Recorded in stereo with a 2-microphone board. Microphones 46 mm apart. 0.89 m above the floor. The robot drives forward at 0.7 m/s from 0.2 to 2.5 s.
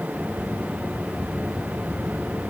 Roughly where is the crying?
I don't hear crying.